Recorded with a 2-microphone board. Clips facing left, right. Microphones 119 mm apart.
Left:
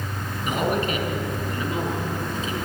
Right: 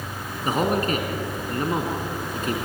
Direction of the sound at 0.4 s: 40° right (ahead or behind).